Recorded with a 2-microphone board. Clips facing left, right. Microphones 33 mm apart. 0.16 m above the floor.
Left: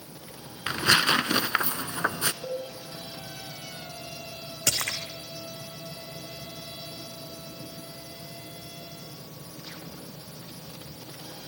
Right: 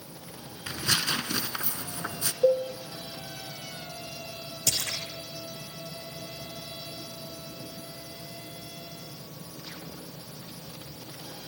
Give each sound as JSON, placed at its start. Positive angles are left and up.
{"t": 0.7, "sound": "tearing paper", "side_deg": 55, "distance_m": 0.8}
{"t": 2.4, "sound": "a cowbell", "side_deg": -75, "distance_m": 3.0}
{"t": 4.7, "sound": "a splash", "side_deg": 75, "distance_m": 2.5}